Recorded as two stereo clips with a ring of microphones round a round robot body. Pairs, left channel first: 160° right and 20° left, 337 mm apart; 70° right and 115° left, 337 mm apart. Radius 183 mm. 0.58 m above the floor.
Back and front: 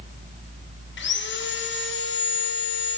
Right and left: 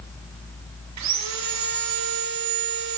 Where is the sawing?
150° left, 1.9 m.